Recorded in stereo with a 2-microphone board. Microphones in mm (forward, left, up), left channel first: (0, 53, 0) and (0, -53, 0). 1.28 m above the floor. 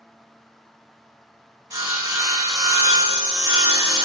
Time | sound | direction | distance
1.7 | sawing | 30° right (ahead or behind) | 1.5 m